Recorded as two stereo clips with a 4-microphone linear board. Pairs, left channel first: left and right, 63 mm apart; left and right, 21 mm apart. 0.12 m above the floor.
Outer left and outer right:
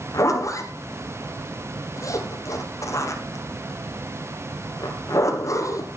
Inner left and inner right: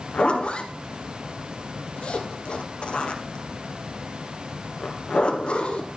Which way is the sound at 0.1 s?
55° left (ahead or behind).